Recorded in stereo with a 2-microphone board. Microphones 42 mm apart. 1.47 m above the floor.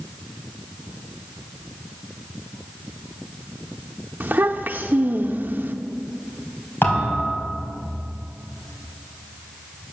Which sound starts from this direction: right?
A child speaking, at 4.2 s.